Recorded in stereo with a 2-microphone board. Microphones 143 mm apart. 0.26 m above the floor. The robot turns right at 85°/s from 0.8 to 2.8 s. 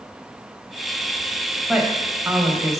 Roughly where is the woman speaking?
Centre.